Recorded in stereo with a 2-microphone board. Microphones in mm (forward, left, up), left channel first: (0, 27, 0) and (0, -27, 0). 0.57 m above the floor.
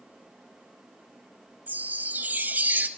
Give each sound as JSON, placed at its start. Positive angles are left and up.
{"t": 1.7, "sound": "a chime", "side_deg": -35, "distance_m": 0.5}